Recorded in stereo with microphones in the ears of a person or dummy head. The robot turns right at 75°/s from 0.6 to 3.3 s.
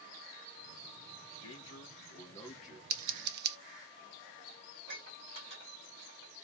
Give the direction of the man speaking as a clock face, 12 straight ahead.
9 o'clock.